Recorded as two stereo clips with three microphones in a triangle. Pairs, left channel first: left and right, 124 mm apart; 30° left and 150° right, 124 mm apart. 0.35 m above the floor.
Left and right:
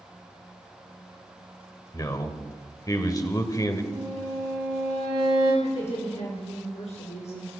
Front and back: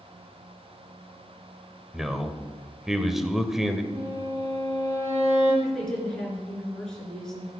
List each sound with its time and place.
1.9 s a man speaking: 125° left, 1.3 m
3.9 s a violin: 120° right, 6 m
5.6 s a woman speaking: 115° left, 4 m